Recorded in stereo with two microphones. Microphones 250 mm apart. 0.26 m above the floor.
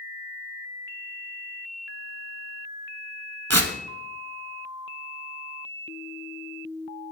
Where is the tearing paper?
70° right (ahead or behind), 1.0 m.